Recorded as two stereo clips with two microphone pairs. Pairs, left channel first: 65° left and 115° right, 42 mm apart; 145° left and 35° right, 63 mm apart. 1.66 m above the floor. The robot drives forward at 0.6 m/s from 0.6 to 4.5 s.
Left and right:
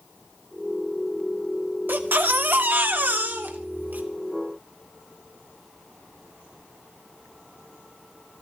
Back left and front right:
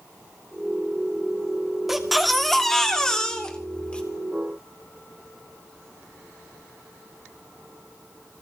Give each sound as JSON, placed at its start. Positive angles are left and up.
{"t": 1.9, "sound": "a baby crying", "azimuth_deg": -120, "distance_m": 1.8}